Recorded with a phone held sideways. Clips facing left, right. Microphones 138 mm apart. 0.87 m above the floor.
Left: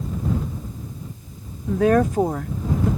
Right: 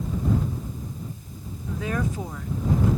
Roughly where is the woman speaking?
Left.